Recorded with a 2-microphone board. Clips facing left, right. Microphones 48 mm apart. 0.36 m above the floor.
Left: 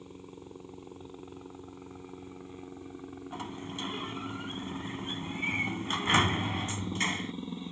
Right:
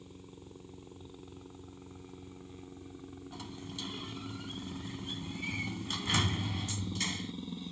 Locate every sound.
0.0 s a helicopter: 25° left (ahead or behind)
3.3 s a sliding door: 40° left (ahead or behind)